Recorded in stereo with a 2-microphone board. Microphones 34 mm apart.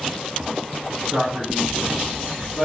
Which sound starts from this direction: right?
A man speaking, at 1.1 s.